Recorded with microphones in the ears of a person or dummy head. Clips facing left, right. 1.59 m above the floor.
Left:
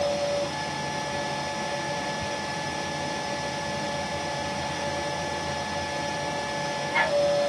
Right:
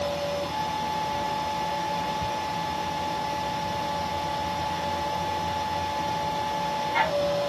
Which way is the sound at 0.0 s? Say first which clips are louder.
Left 3 dB; 5° left (ahead or behind).